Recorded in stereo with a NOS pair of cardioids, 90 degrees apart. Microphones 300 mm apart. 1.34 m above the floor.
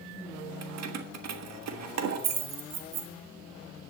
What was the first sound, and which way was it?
Keys jangling, 65° right.